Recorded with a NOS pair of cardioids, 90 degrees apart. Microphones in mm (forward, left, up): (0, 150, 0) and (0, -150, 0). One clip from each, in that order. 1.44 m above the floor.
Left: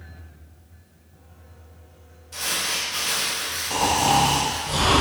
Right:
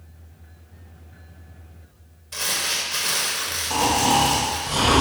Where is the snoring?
5° right, 1.1 m.